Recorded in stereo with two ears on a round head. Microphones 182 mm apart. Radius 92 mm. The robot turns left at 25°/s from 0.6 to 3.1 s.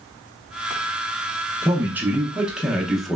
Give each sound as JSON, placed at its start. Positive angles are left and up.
{"t": 1.6, "sound": "a man speaking", "side_deg": -10, "distance_m": 0.7}